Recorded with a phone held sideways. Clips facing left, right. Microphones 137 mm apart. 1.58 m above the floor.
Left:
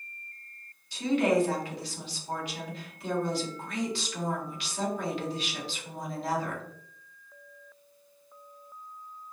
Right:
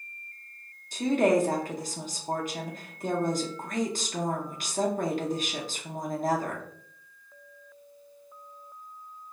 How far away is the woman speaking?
About 0.6 m.